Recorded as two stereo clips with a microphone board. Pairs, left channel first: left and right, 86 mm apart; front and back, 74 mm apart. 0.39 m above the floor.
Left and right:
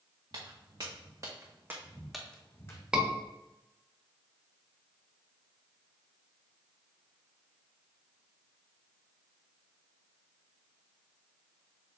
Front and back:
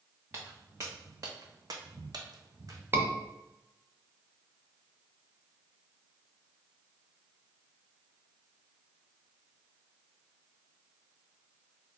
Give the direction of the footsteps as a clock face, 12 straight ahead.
4 o'clock.